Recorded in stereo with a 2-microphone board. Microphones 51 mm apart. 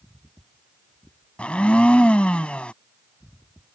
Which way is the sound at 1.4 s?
20° left (ahead or behind).